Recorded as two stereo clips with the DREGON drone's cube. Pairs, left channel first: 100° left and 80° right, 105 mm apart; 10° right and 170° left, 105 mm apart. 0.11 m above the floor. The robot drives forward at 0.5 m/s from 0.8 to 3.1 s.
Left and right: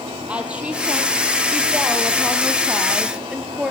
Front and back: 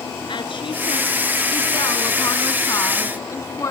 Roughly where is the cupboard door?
I don't hear a cupboard door.